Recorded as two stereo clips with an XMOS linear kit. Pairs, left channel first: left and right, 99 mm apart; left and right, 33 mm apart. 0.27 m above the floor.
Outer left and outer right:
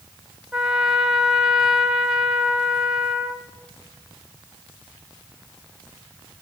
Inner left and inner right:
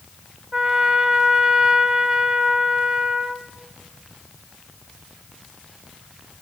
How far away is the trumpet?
About 1.2 m.